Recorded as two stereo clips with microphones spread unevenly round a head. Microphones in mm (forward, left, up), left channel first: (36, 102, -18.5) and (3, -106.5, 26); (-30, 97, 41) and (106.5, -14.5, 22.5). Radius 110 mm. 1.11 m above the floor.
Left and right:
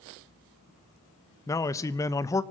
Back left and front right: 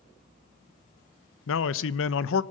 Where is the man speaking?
155° left, 0.6 m.